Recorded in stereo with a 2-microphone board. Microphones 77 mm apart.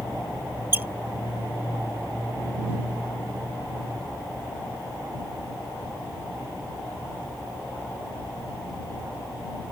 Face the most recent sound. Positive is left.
turn(degrees=-30)  # may be behind; listen again after turning